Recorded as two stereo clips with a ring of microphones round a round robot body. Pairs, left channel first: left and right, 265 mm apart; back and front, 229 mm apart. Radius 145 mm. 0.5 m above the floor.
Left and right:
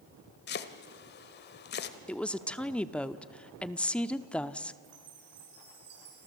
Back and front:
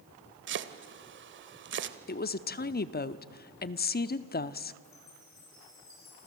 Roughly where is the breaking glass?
I don't hear breaking glass.